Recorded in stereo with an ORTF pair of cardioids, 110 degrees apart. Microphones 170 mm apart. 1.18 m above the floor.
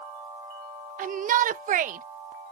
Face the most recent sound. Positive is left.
turn(degrees=-50)